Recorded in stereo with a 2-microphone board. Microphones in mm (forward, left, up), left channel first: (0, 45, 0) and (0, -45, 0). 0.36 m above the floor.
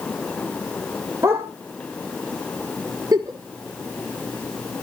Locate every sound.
1.2 s a dog barking: 30° right (ahead or behind), 2.5 m
3.1 s a giggle: 40° right (ahead or behind), 1.5 m